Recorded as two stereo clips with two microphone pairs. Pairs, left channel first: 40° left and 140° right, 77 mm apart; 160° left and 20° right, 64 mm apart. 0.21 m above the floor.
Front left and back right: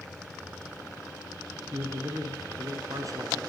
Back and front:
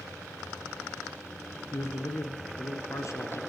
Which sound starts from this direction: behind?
A man speaking, at 1.7 s.